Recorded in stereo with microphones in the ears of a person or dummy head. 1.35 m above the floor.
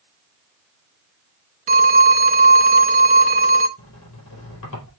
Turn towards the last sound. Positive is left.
turn(degrees=70)  # may be behind; listen again after turning